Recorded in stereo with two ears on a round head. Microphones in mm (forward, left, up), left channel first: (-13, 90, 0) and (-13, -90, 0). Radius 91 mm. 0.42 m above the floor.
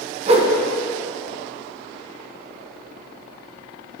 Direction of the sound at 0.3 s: 35° right (ahead or behind).